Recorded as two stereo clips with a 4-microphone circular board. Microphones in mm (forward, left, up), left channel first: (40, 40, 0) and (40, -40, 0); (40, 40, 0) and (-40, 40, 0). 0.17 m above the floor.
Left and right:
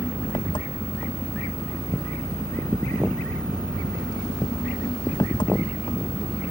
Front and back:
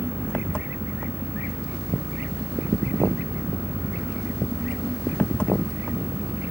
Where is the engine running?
75° left.